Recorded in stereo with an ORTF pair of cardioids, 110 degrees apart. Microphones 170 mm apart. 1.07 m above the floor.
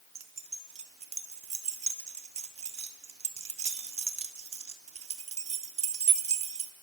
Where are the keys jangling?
40° right, 1.6 m.